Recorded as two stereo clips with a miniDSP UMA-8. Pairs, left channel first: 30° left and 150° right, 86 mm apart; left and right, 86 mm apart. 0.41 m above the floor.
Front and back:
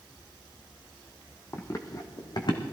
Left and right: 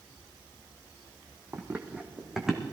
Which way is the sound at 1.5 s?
30° right.